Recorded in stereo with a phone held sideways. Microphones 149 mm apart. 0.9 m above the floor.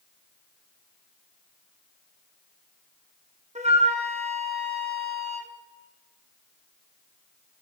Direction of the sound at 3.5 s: 45° right (ahead or behind).